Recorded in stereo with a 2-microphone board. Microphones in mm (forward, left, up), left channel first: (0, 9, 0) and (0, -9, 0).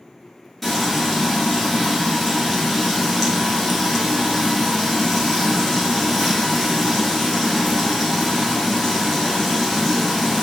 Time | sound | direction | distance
0.6 | frying | 5° left (ahead or behind) | 1.3 m